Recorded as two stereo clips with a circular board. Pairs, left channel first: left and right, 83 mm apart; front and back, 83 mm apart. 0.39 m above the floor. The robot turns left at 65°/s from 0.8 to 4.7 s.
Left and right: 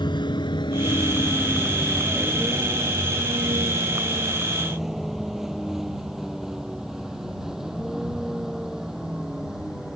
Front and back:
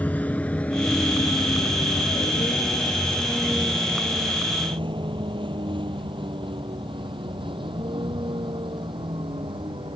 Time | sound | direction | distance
0.0 | a vehicle | 70° left | ?